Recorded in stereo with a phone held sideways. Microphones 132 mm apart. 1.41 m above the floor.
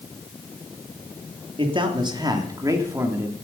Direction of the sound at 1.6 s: 40° right (ahead or behind).